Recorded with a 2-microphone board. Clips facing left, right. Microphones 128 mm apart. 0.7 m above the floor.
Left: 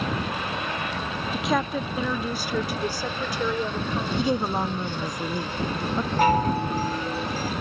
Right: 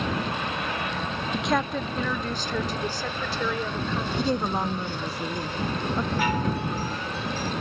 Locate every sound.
1.3 s a woman speaking: centre (ahead or behind); by 5.2 s 15° left (ahead or behind)
4.2 s a woman speaking: 5° left (ahead or behind)
6.2 s a chime: 45° left (ahead or behind)